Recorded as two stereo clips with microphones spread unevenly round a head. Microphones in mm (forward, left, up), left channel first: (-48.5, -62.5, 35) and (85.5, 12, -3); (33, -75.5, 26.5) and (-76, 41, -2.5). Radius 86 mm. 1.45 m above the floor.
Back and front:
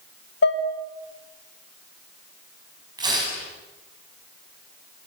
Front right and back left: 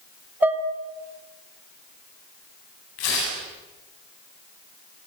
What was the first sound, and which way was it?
Dishes clattering, 145° right.